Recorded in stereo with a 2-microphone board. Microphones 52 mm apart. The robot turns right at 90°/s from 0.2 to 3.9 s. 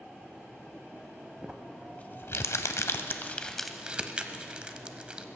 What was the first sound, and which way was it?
Crumpling, 20° right (ahead or behind).